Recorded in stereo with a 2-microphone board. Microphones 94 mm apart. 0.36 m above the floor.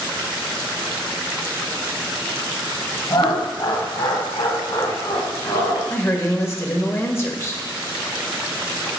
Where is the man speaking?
30° left (ahead or behind), 1.2 m.